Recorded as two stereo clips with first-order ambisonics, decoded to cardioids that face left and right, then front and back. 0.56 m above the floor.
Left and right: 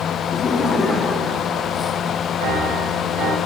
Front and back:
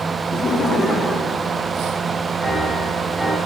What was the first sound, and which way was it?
Laughter, 35° left.